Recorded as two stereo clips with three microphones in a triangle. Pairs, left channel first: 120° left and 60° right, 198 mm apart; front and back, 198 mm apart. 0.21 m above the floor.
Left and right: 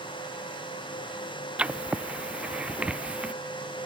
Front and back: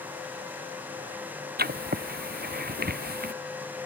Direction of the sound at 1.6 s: 145° right.